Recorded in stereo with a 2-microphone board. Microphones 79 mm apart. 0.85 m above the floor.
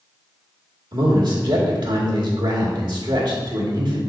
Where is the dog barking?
No dog barking in this recording.